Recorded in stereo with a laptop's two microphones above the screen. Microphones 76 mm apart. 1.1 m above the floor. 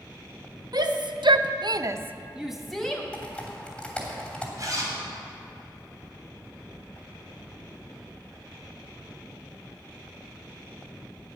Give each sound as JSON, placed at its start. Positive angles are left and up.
{"t": 0.7, "sound": "a shout", "side_deg": -60, "distance_m": 1.1}
{"t": 3.1, "sound": "typing on a keyboard", "side_deg": 15, "distance_m": 3.0}
{"t": 4.6, "sound": "a zipper", "side_deg": -45, "distance_m": 3.5}